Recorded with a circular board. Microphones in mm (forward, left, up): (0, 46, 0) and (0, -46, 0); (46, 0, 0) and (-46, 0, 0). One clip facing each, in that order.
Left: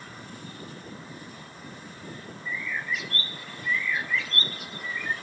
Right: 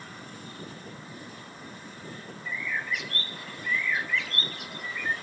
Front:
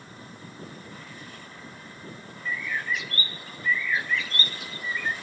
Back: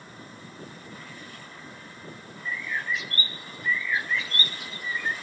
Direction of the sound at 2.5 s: 105° right.